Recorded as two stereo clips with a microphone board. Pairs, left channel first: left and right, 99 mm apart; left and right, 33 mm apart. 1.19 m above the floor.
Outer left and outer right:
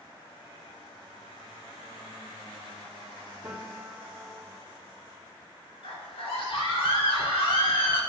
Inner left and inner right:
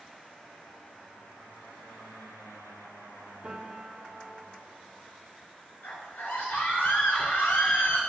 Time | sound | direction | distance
3.4 | a piano | 20° right (ahead or behind) | 2.5 m
5.8 | a scream | 90° left | 3.5 m